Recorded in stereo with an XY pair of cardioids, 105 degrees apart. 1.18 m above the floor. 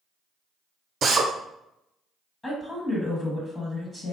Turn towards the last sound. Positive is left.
turn(degrees=20)